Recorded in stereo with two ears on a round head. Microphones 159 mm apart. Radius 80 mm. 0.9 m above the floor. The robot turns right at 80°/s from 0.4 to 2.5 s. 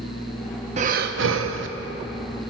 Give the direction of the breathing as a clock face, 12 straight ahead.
5 o'clock.